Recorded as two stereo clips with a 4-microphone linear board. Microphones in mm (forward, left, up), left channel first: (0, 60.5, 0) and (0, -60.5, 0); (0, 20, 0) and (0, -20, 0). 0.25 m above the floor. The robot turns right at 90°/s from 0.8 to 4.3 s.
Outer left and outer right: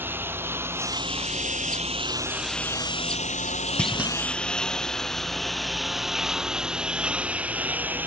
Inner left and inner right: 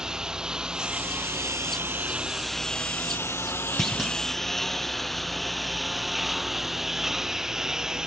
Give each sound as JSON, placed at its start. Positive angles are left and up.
{"t": 0.0, "sound": "a lawn mower", "side_deg": -15}
{"t": 3.8, "sound": "a clunk", "azimuth_deg": 170}